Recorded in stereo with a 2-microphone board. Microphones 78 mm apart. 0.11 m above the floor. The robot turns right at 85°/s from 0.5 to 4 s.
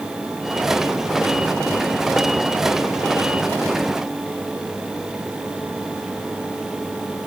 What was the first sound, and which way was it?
Only background noise.